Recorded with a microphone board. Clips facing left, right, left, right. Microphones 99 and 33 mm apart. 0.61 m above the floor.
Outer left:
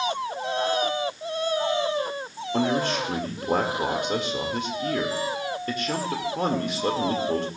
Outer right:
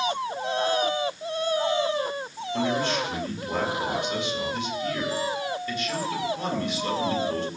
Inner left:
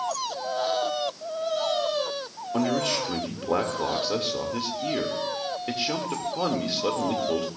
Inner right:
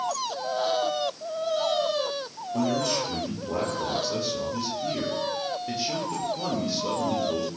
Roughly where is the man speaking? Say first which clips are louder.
Outer left 2 dB, inner left 1 dB; left.